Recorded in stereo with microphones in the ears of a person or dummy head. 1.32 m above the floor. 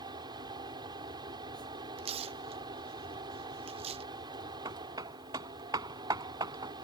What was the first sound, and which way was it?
A fan, 20° right (ahead or behind).